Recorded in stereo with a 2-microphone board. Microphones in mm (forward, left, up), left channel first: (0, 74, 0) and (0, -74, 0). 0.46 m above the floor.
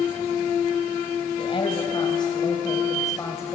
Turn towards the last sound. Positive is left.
turn(degrees=15)  # may be behind; listen again after turning